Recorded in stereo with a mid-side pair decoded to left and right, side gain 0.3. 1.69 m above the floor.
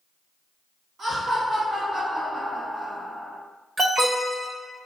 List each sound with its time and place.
1.0 s laughter: 70° right, 1.9 m
3.8 s an alarm: 55° right, 1.4 m